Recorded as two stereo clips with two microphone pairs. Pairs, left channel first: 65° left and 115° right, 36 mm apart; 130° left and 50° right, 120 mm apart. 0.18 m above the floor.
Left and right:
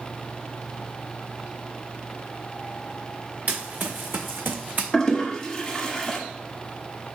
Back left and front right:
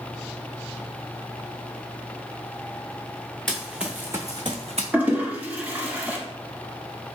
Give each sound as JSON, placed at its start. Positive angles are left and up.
{"t": 3.5, "sound": "running footsteps", "azimuth_deg": -145, "distance_m": 1.0}
{"t": 4.9, "sound": "a toilet flushing", "azimuth_deg": 15, "distance_m": 0.9}